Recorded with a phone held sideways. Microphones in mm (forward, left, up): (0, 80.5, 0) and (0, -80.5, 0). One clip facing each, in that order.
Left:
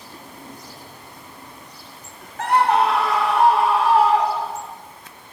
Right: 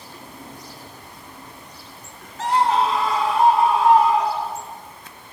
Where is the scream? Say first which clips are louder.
Left 2 dB; 55° left (ahead or behind), 0.8 m; by 4.7 s 70° left (ahead or behind), 2 m.